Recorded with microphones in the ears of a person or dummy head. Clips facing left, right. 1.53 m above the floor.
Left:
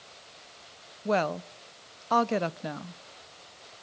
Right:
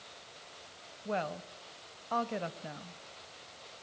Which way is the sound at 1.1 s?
75° left (ahead or behind).